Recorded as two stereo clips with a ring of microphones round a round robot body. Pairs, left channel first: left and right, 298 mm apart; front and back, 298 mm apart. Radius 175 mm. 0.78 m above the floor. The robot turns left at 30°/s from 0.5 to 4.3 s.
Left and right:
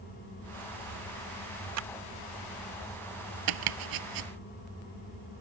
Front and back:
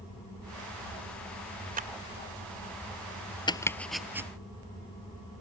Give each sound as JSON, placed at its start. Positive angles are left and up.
{"t": 1.8, "sound": "a clap", "azimuth_deg": -115}
{"t": 3.5, "sound": "chopping", "azimuth_deg": -75}